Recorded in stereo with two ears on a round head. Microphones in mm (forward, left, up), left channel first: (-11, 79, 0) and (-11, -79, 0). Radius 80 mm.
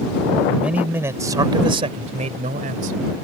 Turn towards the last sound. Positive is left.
turn(degrees=-55)  # may be behind; listen again after turning